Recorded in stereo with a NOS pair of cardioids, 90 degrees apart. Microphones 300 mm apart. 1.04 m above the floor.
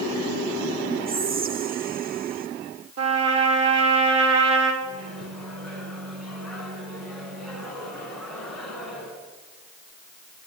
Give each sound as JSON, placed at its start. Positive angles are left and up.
{"t": 1.1, "sound": "whispering", "azimuth_deg": -30, "distance_m": 1.4}
{"t": 3.0, "sound": "a trumpet", "azimuth_deg": -55, "distance_m": 4.0}
{"t": 4.8, "sound": "a microwave", "azimuth_deg": 0, "distance_m": 8.5}